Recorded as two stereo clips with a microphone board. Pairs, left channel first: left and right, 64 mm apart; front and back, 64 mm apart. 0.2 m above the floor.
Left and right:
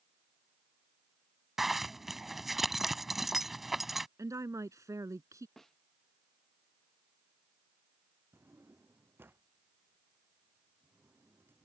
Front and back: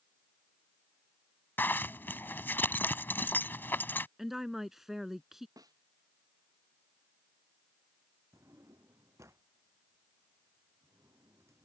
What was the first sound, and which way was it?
A zipper, 5° right.